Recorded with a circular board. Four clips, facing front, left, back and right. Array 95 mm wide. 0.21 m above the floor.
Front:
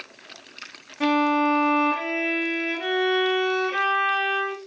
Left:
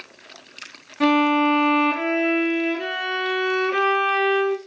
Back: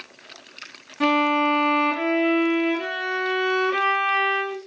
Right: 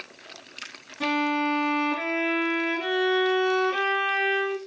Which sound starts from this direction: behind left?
A violin, at 1.0 s.